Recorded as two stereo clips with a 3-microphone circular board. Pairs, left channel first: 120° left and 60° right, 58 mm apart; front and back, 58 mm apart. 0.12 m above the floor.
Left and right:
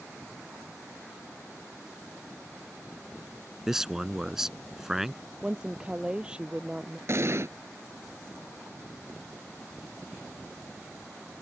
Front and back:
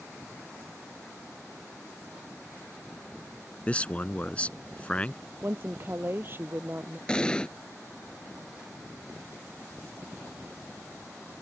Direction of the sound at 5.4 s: 130° right.